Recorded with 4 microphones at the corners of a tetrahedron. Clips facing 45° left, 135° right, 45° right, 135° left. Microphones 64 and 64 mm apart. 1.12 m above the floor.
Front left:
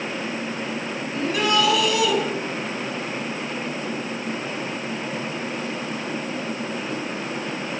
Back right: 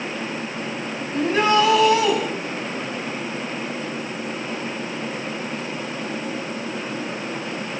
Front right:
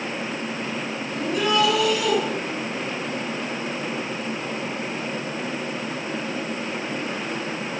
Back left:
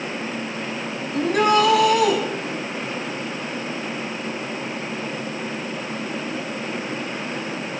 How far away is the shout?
About 10 m.